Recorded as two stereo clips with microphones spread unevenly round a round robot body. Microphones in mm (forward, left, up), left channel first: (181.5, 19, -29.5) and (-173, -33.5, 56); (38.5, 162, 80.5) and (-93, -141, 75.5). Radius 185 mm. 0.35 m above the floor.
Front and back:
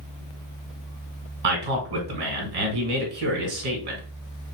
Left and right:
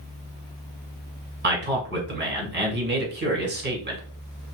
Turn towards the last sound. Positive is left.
turn(degrees=-165)